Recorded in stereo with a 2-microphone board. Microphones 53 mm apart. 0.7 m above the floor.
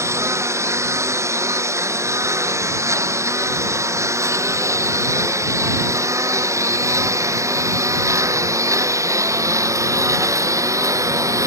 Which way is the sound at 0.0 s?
65° right (ahead or behind).